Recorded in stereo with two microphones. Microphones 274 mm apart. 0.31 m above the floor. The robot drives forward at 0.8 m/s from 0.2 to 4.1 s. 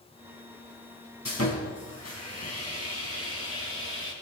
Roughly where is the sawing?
Left.